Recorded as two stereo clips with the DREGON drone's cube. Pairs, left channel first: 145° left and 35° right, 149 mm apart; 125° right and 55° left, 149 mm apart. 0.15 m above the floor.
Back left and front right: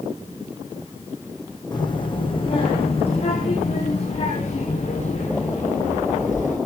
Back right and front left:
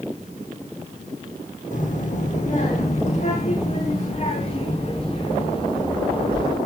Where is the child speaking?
155° right, 4 m; by 6.6 s straight behind, 8 m.